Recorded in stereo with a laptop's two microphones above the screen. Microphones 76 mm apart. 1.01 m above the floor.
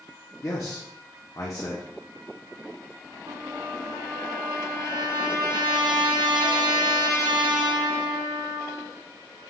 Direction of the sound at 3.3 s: 80° right.